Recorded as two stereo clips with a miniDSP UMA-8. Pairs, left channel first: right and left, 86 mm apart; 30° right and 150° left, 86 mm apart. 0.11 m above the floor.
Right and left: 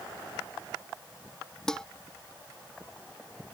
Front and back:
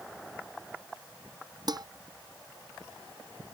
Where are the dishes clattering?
170° right.